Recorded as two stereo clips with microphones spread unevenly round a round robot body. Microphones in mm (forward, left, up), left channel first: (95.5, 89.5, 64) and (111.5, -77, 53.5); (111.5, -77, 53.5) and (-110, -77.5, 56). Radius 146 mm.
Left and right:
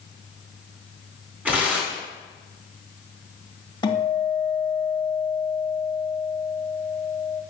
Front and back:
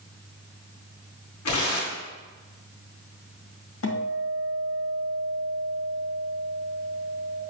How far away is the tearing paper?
About 3 m.